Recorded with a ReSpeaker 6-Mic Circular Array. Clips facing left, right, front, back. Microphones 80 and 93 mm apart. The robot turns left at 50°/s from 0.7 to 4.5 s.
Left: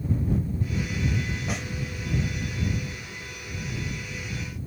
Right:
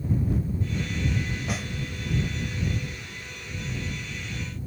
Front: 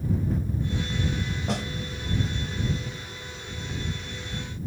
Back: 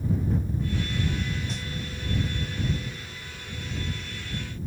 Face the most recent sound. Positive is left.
turn(degrees=-150)